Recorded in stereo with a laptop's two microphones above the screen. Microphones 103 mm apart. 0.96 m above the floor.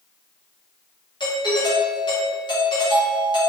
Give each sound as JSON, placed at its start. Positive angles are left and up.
{"t": 1.2, "sound": "a doorbell", "side_deg": 45, "distance_m": 1.0}